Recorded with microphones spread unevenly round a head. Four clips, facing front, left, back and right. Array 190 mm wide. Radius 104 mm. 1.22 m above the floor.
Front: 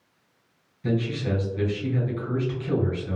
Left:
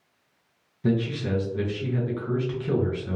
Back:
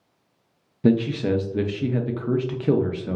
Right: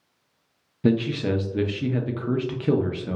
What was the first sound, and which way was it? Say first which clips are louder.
A man speaking: right 3 dB, back 7 dB; 140° right.